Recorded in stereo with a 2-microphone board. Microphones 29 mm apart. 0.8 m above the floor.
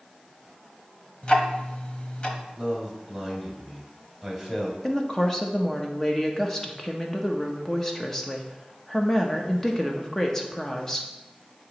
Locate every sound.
1.2 s ticking: 35° left (ahead or behind), 0.9 m
2.5 s a man speaking: 5° left (ahead or behind), 2.5 m
4.8 s a woman speaking: 15° left (ahead or behind), 0.8 m